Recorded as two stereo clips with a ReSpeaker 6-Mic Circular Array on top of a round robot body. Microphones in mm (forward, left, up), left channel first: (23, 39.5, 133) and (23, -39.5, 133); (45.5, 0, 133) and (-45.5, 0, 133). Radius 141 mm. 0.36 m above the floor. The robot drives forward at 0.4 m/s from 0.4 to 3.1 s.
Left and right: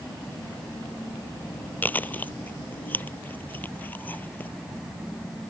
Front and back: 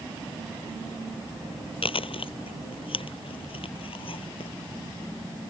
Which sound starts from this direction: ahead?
Chewing, at 1.8 s.